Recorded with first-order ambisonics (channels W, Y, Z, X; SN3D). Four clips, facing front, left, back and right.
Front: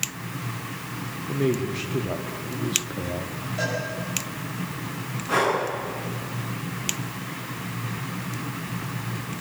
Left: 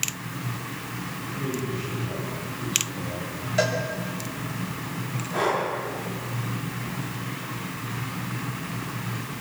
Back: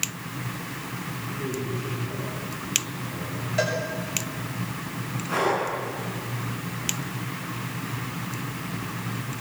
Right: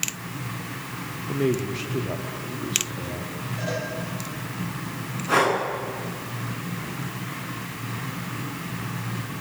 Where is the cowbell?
120° left, 6.5 m.